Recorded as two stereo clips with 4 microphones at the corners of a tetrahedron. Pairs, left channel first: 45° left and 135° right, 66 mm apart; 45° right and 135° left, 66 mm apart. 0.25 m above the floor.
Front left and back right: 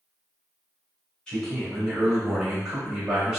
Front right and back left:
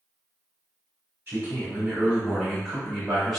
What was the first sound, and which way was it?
A man speaking, 115° left.